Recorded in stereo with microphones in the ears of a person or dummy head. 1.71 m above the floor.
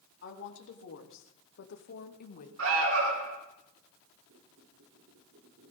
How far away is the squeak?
About 3 m.